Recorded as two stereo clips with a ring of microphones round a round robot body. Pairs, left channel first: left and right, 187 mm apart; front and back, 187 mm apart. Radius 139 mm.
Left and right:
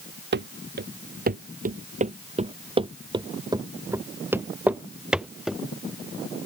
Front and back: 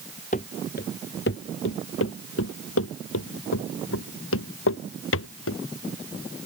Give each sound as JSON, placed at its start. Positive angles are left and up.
{"t": 0.3, "sound": "running footsteps", "azimuth_deg": -65}